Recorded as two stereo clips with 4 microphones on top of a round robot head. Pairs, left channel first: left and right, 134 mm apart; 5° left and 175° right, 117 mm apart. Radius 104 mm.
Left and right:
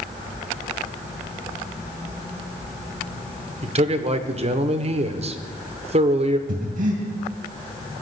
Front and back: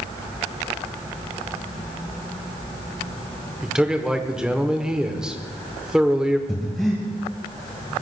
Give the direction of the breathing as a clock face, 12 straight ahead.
3 o'clock.